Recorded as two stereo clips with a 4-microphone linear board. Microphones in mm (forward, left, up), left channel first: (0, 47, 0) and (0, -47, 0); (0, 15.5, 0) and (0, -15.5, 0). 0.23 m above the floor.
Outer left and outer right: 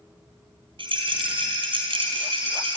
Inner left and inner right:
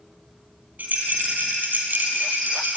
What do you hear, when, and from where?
0.8 s a rattle: 60° right (ahead or behind), 3.5 m